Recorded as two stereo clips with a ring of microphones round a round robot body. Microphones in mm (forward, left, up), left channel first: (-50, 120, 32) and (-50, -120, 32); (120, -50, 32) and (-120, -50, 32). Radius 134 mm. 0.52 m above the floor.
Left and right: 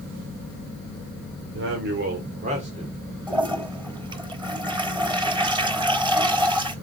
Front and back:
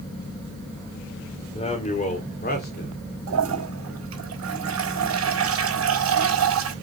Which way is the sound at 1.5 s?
60° right.